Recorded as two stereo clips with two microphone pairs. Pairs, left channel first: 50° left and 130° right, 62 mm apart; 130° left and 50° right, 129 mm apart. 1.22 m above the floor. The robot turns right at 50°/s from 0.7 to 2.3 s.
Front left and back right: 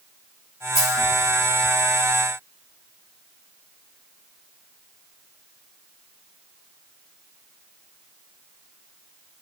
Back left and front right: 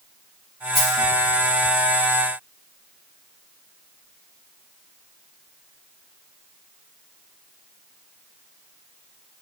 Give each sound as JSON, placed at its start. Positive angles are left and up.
{"t": 0.8, "sound": "a dropped coin", "azimuth_deg": 85, "distance_m": 1.7}